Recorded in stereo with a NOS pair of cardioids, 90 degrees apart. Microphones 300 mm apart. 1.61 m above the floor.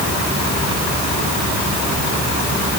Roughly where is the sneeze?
No sneeze in this recording.